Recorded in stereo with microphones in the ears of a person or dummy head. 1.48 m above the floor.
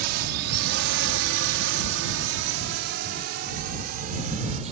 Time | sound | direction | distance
0.0 | a drone | 60° right (ahead or behind) | ?